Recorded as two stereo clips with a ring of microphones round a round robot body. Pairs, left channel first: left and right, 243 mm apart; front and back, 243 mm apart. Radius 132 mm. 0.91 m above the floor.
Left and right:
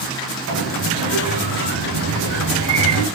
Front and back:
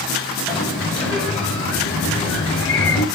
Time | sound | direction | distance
0.5 | a sliding door | 85° right | 3.5 m